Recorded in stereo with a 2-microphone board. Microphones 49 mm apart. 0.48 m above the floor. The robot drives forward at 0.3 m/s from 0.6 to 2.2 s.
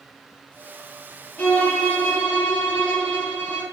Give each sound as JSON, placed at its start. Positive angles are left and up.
{"t": 1.4, "sound": "a violin", "side_deg": 35, "distance_m": 0.9}